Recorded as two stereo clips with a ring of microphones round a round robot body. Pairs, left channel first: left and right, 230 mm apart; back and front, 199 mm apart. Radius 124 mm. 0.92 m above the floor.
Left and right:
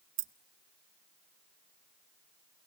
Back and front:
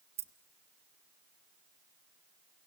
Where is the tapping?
I don't hear tapping.